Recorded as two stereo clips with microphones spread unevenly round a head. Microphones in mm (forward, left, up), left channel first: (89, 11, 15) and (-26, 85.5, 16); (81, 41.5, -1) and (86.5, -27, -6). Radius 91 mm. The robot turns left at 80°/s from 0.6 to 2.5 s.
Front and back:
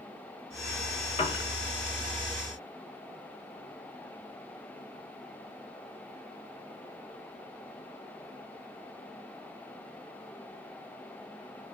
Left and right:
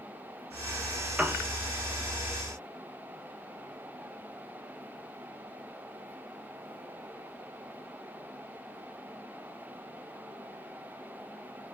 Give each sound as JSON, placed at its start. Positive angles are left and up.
{"t": 1.2, "sound": "a piano", "azimuth_deg": -15, "distance_m": 0.7}